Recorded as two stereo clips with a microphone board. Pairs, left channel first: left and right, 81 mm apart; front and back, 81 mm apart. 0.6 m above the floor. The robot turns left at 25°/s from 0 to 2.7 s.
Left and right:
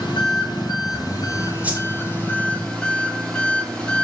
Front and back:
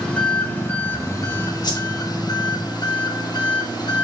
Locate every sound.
0.0 s an engine running: 75° left, 6 m; by 4.0 s 10° left, 6 m
1.6 s a whoosh: 20° right, 1.3 m; by 1.9 s 25° right, 1.3 m